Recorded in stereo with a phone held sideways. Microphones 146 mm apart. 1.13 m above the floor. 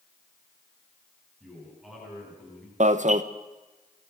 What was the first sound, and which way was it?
A man speaking, centre (ahead or behind).